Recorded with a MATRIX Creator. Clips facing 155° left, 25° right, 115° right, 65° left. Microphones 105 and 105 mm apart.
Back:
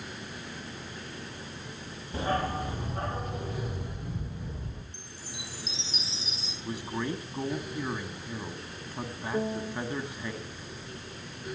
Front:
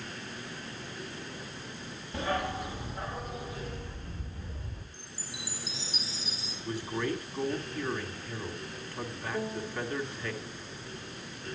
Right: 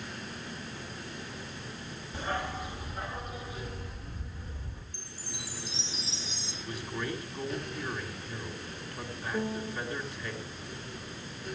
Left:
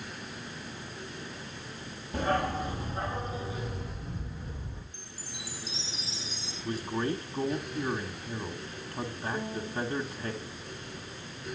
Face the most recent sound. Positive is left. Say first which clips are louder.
# back 5 dB, right 2 dB
turn(degrees=165)